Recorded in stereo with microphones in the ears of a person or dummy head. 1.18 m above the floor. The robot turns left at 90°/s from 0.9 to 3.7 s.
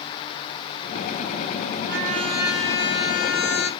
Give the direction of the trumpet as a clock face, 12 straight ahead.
4 o'clock.